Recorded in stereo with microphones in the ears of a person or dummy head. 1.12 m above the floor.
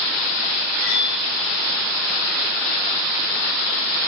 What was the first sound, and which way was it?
Cutlery clinking, 70° left (ahead or behind).